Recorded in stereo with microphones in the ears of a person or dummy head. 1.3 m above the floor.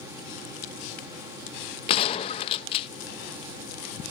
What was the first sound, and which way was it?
A gunshot, 35° left (ahead or behind).